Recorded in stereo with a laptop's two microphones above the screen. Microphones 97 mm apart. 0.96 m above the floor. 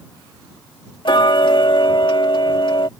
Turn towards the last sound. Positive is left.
turn(degrees=60)  # may be behind; listen again after turning